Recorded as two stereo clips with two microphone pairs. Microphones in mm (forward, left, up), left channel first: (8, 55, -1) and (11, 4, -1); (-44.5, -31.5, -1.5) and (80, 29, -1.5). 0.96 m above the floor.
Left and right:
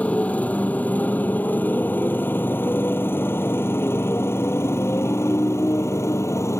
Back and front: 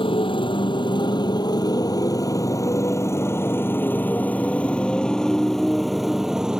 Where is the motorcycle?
155° left; by 6.6 s 110° left.